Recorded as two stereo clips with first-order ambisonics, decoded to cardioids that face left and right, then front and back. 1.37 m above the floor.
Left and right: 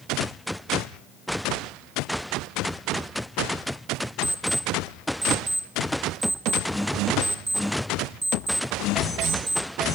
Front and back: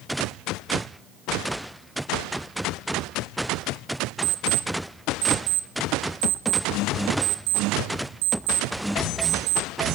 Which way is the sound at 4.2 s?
170° right.